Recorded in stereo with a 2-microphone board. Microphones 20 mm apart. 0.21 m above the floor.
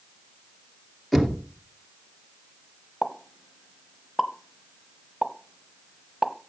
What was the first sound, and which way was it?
Knocking, 5° left (ahead or behind).